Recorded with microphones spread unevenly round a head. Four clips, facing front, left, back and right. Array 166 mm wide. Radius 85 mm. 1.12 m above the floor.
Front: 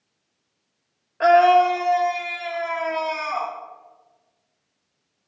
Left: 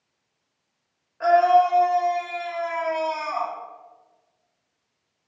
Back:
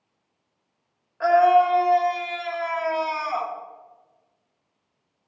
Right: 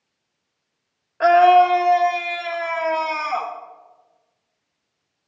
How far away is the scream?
About 1.0 m.